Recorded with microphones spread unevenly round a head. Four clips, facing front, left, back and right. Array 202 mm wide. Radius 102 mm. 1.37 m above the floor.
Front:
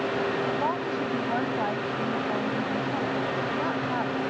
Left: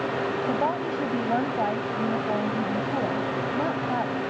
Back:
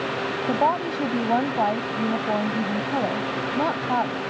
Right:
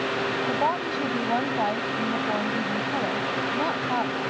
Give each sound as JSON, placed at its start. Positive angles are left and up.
{"t": 0.5, "sound": "a woman speaking", "azimuth_deg": 175}